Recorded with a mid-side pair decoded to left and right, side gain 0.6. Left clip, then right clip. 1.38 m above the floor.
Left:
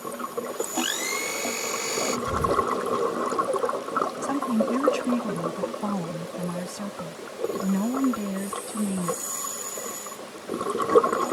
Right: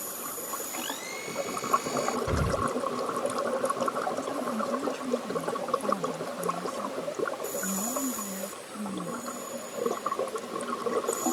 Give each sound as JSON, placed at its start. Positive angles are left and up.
{"t": 0.8, "sound": "a blender", "azimuth_deg": 45}
{"t": 2.3, "sound": "an explosion", "azimuth_deg": -25}
{"t": 4.2, "sound": "a woman speaking", "azimuth_deg": 45}